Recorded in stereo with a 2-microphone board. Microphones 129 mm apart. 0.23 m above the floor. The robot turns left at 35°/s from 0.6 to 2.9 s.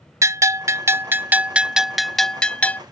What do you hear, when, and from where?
0.2 s a bell: 130° right; by 2.8 s 155° left